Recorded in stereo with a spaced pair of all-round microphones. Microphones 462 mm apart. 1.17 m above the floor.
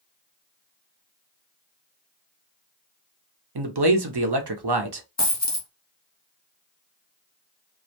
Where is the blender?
I don't hear a blender.